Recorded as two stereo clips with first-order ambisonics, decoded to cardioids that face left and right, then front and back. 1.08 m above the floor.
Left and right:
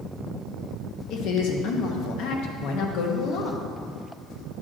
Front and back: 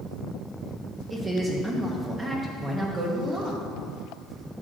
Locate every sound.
1.1 s a woman speaking: 105° left, 1.1 m